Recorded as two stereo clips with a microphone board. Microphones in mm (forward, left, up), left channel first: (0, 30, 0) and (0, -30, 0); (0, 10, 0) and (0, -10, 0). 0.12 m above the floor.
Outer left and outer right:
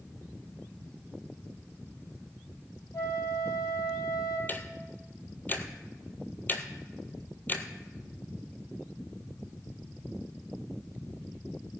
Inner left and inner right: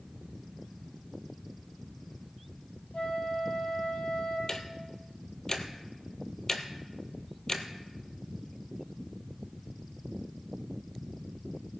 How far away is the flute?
About 3 m.